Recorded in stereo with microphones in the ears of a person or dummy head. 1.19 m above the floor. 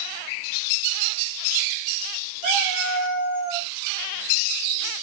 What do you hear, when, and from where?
2.4 s a cat meowing: 70° left (ahead or behind), 1.0 m